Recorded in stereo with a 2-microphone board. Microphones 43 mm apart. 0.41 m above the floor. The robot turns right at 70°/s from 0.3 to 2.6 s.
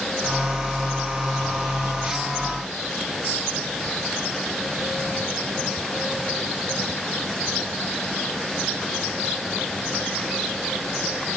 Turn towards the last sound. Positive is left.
No sound to turn to.